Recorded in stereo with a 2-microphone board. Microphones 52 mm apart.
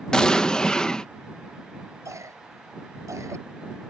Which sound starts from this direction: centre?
An explosion, at 0.1 s.